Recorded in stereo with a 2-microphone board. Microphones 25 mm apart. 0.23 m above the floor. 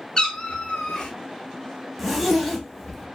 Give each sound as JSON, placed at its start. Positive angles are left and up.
{"t": 0.2, "sound": "a cat meowing", "side_deg": 30, "distance_m": 1.0}
{"t": 2.0, "sound": "a zipper", "side_deg": 0, "distance_m": 0.7}